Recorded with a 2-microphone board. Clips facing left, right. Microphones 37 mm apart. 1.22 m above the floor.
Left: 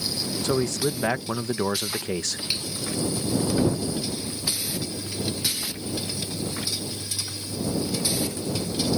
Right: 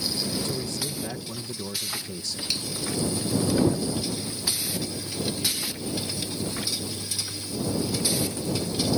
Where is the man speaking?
70° left (ahead or behind).